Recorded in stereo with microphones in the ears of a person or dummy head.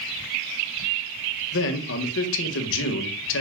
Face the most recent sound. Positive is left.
turn(degrees=70)  # may be behind; listen again after turning